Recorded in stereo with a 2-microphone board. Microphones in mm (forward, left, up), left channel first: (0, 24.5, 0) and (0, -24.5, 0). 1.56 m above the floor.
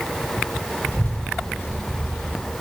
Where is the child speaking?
45° left (ahead or behind), 9 m.